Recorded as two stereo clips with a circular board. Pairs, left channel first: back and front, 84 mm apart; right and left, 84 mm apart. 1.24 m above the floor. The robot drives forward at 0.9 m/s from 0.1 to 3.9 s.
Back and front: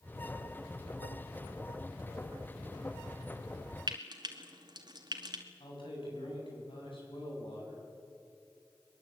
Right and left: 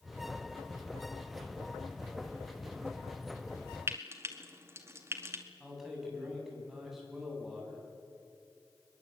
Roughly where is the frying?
Ahead left.